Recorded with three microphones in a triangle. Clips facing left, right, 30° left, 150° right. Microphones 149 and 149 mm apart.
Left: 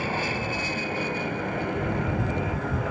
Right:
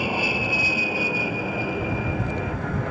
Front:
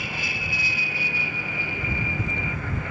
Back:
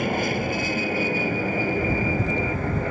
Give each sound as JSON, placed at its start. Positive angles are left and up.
{"t": 0.0, "sound": "an aircraft", "azimuth_deg": -165}